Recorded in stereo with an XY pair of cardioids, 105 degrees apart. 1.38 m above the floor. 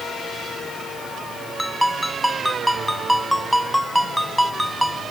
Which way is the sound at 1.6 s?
5° right.